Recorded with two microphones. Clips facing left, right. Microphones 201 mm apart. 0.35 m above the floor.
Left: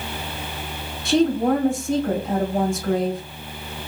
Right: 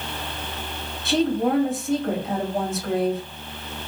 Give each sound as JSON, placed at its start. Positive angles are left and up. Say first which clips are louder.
{"t": 1.1, "sound": "a woman speaking", "louder": "left 3 dB", "side_deg": 0, "distance_m": 1.7}